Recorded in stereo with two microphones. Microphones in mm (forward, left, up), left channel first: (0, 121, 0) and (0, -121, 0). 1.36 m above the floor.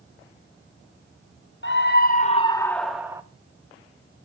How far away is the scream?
About 0.9 m.